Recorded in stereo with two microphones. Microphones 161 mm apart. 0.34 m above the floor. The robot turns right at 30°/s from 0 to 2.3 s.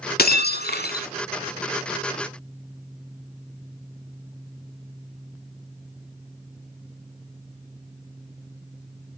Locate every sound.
0.2 s breaking glass: 75° left (ahead or behind), 0.6 m; by 1.1 s 80° left, 0.6 m